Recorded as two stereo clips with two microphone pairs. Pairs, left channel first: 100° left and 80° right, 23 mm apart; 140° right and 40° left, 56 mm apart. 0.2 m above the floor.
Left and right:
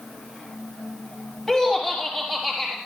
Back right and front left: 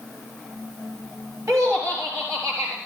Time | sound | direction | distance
1.5 | laughter | 30° left | 3.5 m